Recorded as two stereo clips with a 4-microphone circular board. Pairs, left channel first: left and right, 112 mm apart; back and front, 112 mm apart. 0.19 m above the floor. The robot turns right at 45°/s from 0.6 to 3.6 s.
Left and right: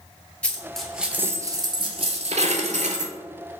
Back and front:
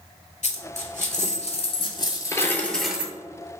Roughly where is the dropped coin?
Behind.